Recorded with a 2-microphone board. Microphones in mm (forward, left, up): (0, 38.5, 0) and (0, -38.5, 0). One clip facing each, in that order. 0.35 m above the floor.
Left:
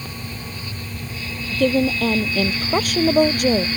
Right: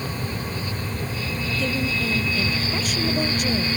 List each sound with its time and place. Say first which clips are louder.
1.5 s a woman speaking: left 9 dB; 55° left (ahead or behind)